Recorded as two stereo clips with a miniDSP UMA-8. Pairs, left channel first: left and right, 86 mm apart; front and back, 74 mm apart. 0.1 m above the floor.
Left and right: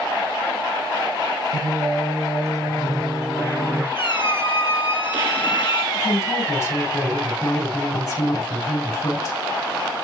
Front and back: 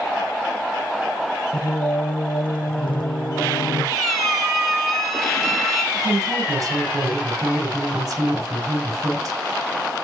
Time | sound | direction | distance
1.5 | singing | straight ahead | 2.5 m
4.0 | a squeak | 85° left | 1.8 m
5.9 | a woman speaking | 135° left | 6.5 m